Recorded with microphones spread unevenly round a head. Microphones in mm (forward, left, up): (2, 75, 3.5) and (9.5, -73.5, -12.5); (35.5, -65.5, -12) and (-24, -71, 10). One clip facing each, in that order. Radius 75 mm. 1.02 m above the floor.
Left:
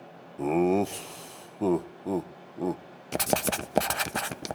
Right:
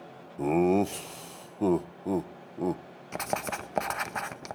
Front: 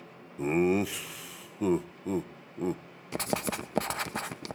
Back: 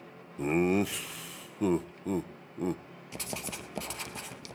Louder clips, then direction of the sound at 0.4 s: Even, front 1 dB; 10° right.